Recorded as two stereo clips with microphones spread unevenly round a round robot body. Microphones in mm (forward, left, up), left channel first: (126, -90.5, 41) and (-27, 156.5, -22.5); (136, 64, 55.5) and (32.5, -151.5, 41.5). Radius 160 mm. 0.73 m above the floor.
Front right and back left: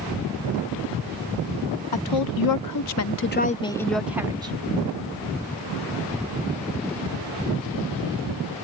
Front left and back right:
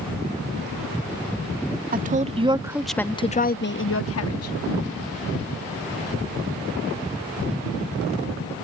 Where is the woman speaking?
65° right; by 4.5 s 55° left.